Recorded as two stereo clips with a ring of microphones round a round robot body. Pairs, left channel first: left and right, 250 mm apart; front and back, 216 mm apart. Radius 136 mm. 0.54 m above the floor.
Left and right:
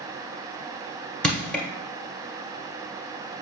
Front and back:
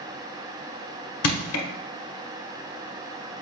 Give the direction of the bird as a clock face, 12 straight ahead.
I don't hear a bird.